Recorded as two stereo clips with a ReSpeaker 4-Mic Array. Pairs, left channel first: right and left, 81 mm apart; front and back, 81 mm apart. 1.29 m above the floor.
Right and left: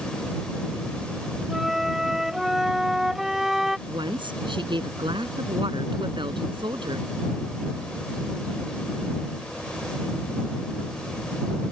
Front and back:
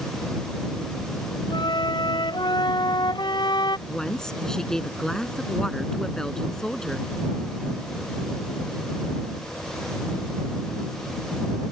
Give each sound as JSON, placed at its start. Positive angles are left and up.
{"t": 1.5, "sound": "a flute", "azimuth_deg": 5}
{"t": 3.9, "sound": "a woman speaking", "azimuth_deg": 85}